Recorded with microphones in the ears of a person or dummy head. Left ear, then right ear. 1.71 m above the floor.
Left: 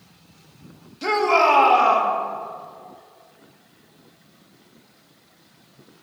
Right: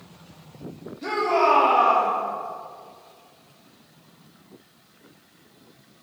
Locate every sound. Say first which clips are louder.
1.0 s a shout: left 3 dB; 60° left (ahead or behind), 2.5 m